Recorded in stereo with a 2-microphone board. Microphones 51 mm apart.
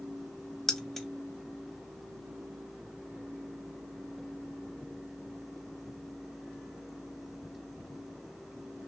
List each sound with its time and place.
0.7 s keys jangling: 5° left (ahead or behind), 0.7 m